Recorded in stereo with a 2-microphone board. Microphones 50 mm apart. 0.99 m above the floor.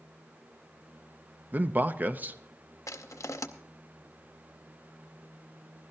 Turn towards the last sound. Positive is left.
turn(degrees=70)  # may be behind; listen again after turning